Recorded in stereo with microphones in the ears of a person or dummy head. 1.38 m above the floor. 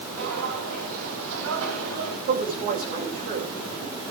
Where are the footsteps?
75° right (ahead or behind), 5 m; by 2.2 s 60° right (ahead or behind), 3 m.